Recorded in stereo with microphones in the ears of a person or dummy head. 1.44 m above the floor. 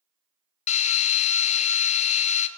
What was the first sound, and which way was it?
A drill, 35° left (ahead or behind).